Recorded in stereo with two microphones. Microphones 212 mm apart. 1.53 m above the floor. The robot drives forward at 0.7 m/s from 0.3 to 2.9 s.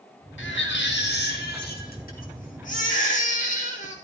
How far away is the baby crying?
About 2 m.